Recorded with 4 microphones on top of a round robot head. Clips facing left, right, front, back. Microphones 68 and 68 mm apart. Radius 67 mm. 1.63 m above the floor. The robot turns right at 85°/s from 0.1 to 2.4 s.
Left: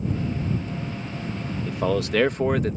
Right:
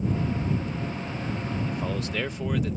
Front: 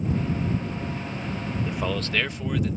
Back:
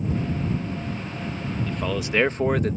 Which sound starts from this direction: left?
A man speaking, at 1.7 s.